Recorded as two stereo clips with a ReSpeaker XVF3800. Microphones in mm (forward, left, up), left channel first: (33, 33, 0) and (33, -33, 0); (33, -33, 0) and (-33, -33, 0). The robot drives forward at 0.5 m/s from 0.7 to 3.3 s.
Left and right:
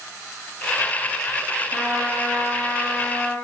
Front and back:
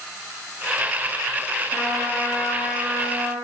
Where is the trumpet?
25° left, 2.0 m; by 3.3 s 60° left, 1.7 m.